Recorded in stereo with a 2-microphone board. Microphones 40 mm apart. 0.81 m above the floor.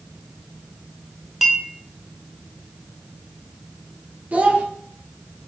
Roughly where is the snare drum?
I don't hear a snare drum.